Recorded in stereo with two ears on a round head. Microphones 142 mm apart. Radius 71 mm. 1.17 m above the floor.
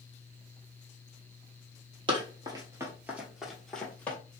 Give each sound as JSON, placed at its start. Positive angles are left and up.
{"t": 2.1, "sound": "running footsteps", "side_deg": -30, "distance_m": 1.3}